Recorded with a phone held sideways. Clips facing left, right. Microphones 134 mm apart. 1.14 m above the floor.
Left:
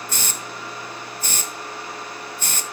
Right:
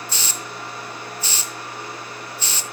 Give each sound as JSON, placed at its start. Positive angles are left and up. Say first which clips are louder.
{"t": 0.1, "sound": "a hiss", "louder": "even", "side_deg": 50, "distance_m": 0.8}